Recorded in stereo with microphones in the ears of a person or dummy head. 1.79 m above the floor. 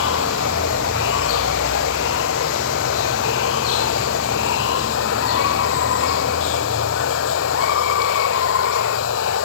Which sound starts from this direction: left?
Running water, at 0.0 s.